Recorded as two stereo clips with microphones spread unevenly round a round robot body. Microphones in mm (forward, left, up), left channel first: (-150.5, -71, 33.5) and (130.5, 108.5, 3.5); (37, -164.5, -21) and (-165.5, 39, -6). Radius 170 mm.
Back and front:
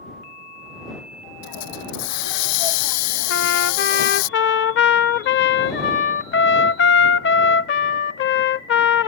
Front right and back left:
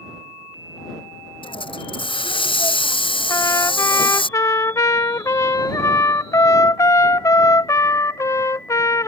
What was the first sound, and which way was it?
A hiss, 120° right.